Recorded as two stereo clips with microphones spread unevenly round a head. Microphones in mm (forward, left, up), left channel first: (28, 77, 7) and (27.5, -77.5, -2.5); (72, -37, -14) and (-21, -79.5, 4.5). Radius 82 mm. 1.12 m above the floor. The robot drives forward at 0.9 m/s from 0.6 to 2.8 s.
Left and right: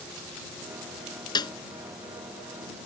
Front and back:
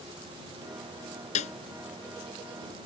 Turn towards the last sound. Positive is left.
turn(degrees=45)